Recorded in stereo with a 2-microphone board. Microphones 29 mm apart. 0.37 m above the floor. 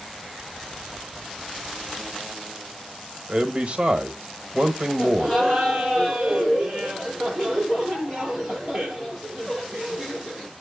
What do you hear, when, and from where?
3.3 s a man speaking: 45° right (ahead or behind), 1.3 m
5.0 s laughter: 20° right (ahead or behind), 7.5 m